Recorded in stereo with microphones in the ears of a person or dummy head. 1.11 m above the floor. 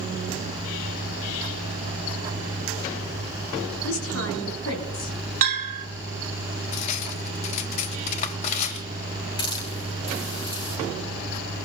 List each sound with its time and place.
3.8 s a woman speaking: 85° left, 9 m
5.4 s a bell: 40° right (ahead or behind), 2 m
6.7 s cutlery clinking: 40° left (ahead or behind), 1.3 m
9.4 s a hiss: 35° left (ahead or behind), 6 m